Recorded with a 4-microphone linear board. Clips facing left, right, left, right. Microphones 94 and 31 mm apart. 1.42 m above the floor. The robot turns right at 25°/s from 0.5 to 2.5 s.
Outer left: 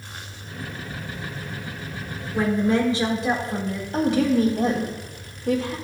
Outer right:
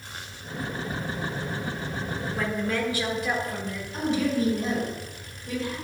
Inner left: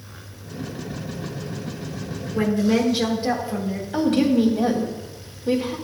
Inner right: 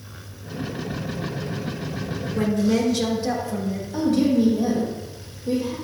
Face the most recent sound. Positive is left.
turn(degrees=85)